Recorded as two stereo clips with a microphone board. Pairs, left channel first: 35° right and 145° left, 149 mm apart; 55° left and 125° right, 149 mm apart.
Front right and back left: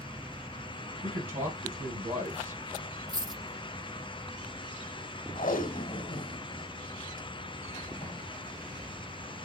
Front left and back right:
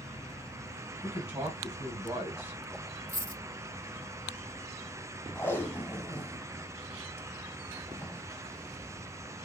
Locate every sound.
1.0 s a man speaking: 170° left, 1.9 m
3.1 s a dropped coin: 155° right, 2 m
5.3 s tape being pulled: 15° right, 0.8 m